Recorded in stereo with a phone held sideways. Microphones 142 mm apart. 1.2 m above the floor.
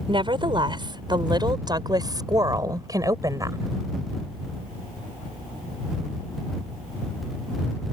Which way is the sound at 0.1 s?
35° right (ahead or behind).